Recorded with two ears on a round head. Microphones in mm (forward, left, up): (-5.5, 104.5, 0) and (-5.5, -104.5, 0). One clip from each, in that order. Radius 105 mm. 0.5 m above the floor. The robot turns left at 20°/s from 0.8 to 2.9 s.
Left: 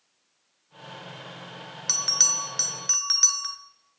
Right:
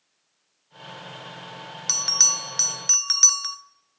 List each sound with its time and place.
1.9 s a bell: 5° right (ahead or behind), 0.7 m; by 3.6 s 15° right (ahead or behind), 0.7 m